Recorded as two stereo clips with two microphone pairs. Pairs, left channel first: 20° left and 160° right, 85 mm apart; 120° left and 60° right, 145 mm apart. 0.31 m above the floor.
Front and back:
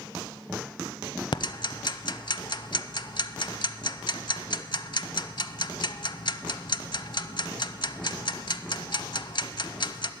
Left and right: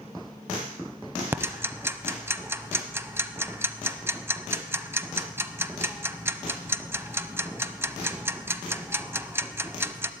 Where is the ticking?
10° left, 0.6 m.